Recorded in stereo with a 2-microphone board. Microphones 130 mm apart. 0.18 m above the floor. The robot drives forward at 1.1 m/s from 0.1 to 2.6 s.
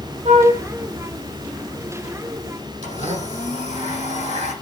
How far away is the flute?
About 6 m.